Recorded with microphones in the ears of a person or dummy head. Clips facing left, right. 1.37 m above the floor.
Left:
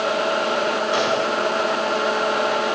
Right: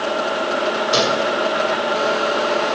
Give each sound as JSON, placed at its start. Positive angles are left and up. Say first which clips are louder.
{"t": 0.9, "sound": "a gunshot", "louder": "right 4 dB", "side_deg": -45, "distance_m": 1.7}